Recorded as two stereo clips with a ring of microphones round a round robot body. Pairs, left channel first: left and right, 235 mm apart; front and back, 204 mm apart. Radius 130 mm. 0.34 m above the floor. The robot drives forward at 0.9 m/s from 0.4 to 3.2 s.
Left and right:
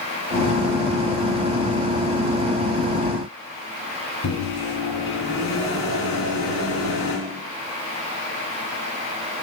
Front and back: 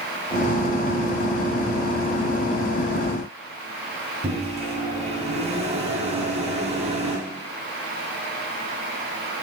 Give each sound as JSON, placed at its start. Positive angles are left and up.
{"t": 4.2, "sound": "a microwave", "azimuth_deg": 120, "distance_m": 3.5}